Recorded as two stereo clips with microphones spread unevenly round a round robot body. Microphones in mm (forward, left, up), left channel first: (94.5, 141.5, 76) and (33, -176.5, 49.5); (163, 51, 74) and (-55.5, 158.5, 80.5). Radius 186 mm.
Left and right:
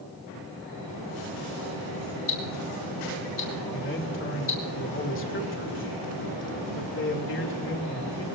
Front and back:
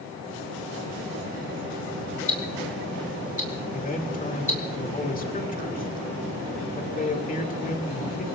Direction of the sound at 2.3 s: 30° left.